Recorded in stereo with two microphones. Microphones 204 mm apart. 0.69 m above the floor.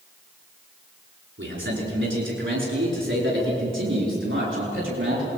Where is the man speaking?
75° right (ahead or behind), 8.5 m; by 5.3 s 80° right, 11 m.